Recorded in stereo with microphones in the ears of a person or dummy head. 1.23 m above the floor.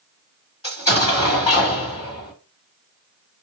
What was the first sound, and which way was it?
An explosion, 30° left (ahead or behind).